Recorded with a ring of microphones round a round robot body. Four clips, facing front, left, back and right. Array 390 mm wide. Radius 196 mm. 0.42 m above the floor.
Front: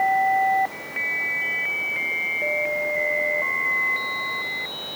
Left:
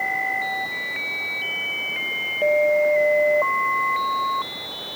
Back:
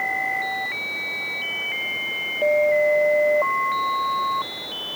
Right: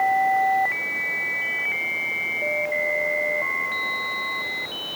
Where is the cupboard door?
No cupboard door in this recording.